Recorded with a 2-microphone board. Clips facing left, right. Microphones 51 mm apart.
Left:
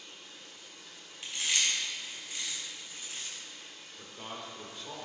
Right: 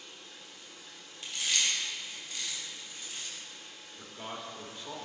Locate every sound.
0.0 s running water: centre (ahead or behind), 2.5 m
1.2 s chewing: 30° left (ahead or behind), 3 m
4.0 s a man speaking: 5° right (ahead or behind), 1.0 m